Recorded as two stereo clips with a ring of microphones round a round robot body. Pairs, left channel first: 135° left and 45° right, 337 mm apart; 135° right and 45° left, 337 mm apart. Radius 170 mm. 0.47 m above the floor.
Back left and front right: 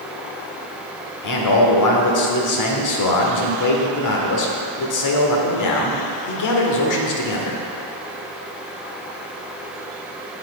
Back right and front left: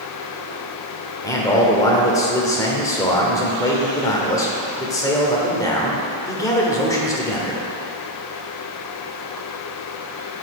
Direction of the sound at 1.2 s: 145° left.